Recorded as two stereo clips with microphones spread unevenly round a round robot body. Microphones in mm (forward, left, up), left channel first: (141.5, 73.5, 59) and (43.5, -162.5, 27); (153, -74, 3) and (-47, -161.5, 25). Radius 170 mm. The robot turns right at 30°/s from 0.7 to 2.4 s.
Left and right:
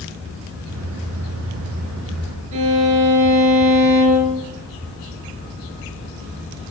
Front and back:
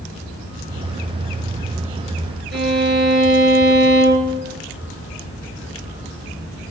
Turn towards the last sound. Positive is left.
turn(degrees=-115)